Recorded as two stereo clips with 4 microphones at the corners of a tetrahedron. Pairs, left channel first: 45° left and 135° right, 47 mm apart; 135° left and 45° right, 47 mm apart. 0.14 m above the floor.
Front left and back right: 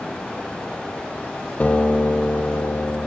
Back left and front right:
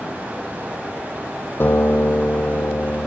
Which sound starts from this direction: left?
A guitar, at 1.6 s.